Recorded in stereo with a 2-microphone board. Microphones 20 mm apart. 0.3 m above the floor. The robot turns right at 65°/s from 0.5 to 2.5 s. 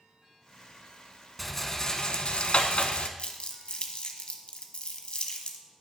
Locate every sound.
1.4 s a rattle: straight ahead, 0.6 m; by 3.1 s 75° left, 0.6 m
3.2 s crumpling: 55° left (ahead or behind), 0.8 m